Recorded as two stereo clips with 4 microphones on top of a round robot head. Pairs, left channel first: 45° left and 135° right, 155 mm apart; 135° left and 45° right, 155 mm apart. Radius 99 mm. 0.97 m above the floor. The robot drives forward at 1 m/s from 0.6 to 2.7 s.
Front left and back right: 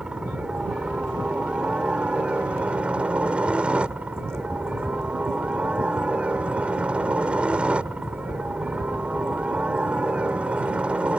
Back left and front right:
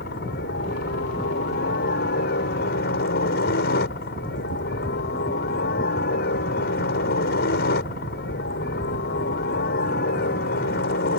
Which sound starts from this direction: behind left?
A helicopter, at 0.0 s.